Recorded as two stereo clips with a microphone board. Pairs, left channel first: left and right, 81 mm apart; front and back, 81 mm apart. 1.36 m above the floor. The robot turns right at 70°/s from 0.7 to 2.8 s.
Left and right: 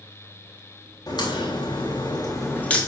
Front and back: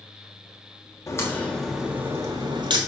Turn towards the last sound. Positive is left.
turn(degrees=170)